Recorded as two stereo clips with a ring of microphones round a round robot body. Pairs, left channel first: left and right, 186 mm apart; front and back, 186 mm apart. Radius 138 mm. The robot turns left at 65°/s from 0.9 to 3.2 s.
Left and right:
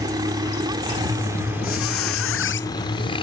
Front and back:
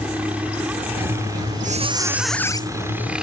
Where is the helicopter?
110° right; by 3.2 s 100° left.